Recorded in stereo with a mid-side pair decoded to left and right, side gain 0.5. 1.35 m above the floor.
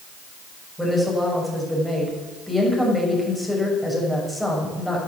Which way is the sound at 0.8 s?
5° left.